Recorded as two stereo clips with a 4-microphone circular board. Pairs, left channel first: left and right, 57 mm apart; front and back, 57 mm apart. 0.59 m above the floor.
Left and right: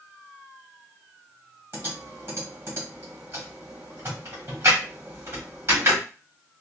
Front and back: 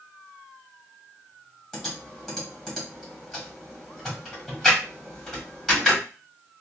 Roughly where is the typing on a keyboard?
Right.